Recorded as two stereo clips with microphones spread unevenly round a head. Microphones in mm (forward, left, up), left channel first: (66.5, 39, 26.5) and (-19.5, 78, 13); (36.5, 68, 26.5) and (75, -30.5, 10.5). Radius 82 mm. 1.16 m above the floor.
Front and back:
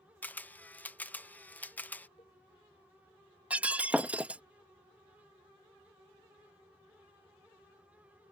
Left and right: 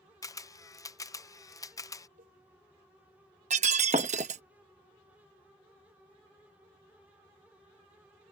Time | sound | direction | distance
0.2 | a camera shutter | 50° left | ?
2.2 | a cowbell | 85° right | ?
3.5 | breaking glass | 120° right | ?